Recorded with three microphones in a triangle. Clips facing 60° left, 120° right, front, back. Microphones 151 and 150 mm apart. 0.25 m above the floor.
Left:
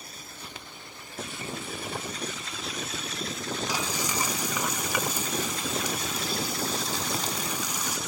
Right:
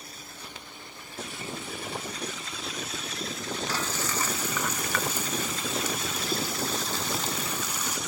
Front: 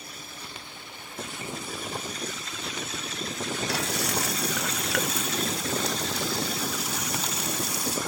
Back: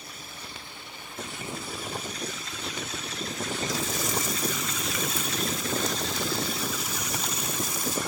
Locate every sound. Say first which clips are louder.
3.7 s frying: left 1 dB, front 1 dB; 20° right